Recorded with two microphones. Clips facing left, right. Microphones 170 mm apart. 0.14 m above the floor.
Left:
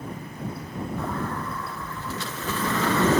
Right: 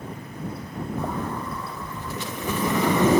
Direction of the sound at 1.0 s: 15° right (ahead or behind).